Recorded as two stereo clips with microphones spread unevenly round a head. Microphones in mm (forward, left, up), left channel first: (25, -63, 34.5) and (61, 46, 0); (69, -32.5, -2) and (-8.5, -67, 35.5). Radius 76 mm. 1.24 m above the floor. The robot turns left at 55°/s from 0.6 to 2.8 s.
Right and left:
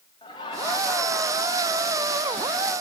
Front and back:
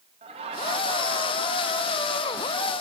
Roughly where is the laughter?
Behind.